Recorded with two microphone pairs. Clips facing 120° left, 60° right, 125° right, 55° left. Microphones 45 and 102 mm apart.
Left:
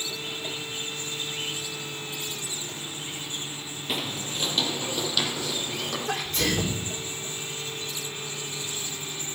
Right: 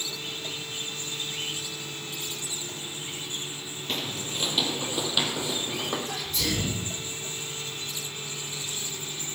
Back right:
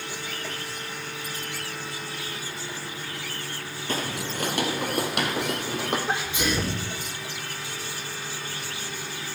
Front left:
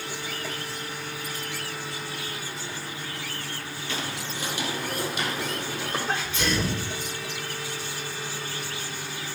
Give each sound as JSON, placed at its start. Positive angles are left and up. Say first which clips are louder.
{"t": 3.9, "sound": "footsteps", "louder": "left 1 dB, back right 4 dB", "azimuth_deg": -160, "distance_m": 1.9}
{"t": 6.1, "sound": "a sneeze", "louder": "left 3 dB, back right 1 dB", "azimuth_deg": 160, "distance_m": 4.0}